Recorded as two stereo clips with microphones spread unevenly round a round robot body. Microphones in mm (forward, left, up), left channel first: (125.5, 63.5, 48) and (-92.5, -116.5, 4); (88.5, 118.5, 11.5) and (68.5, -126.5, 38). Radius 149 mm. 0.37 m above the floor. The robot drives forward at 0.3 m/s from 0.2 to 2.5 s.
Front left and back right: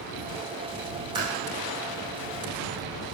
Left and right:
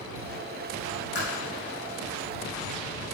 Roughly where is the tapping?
Behind left.